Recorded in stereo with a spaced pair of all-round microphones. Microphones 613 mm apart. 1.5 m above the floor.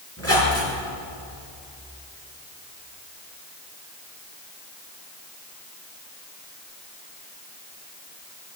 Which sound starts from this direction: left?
A squeak, at 0.2 s.